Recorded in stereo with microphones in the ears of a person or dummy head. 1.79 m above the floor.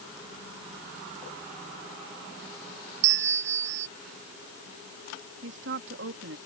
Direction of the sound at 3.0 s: 70° right (ahead or behind).